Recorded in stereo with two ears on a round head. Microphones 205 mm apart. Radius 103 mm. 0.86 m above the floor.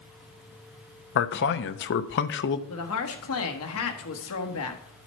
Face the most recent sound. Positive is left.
turn(degrees=65)  # may be behind; listen again after turning